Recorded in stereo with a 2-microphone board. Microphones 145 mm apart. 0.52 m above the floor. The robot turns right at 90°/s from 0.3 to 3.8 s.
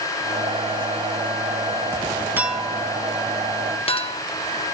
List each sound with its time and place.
2.4 s a clink: 15° right (ahead or behind), 0.9 m; by 4.2 s 40° left (ahead or behind), 0.9 m